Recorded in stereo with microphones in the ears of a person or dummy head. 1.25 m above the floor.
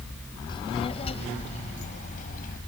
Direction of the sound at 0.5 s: 25° left (ahead or behind).